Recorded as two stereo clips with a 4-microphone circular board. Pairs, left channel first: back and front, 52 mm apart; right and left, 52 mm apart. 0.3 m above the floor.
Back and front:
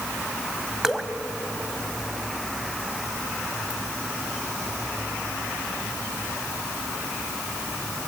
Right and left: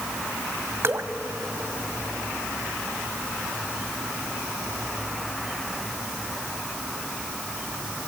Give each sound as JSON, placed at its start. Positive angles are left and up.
{"t": 0.8, "sound": "dripping", "azimuth_deg": 80, "distance_m": 1.1}